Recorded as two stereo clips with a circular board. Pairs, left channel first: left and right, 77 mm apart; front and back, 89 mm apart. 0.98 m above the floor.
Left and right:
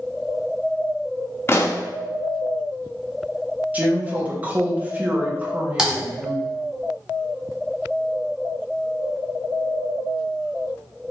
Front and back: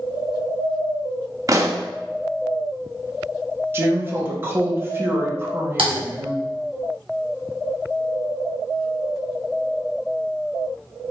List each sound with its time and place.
1.5 s a pop: 140° left, 0.7 m
3.7 s a woman speaking: 140° right, 0.9 m
5.8 s typing on a keyboard: 170° right, 1.4 m